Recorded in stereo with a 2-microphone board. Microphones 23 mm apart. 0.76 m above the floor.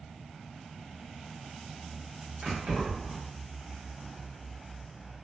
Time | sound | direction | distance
2.4 | keys jangling | 50° right (ahead or behind) | 1.1 m